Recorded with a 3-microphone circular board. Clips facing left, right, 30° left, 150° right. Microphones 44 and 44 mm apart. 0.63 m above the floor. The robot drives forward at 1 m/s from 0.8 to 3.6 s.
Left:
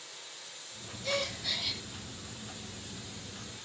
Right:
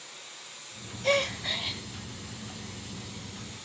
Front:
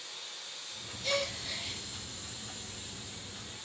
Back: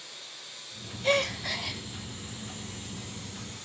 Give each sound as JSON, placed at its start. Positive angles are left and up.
{"t": 0.0, "sound": "running water", "azimuth_deg": -60, "distance_m": 3.0}
{"t": 1.0, "sound": "a gasp", "azimuth_deg": -100, "distance_m": 0.5}